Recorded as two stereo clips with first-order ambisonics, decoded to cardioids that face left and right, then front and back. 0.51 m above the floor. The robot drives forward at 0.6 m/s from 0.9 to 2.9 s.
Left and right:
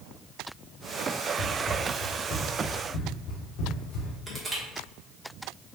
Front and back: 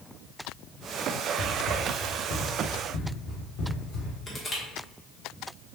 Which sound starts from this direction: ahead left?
Running footsteps, at 1.4 s.